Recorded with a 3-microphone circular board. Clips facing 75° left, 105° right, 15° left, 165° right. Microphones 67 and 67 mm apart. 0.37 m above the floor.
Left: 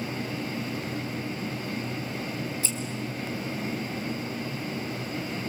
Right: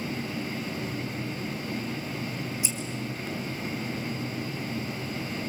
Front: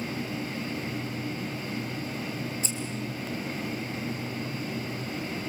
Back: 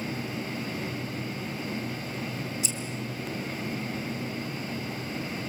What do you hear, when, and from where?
2.6 s scissors: 30° right, 2.5 m